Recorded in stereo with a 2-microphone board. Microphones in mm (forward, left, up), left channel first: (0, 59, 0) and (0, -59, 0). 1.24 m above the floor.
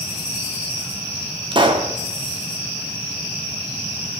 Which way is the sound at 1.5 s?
40° right (ahead or behind).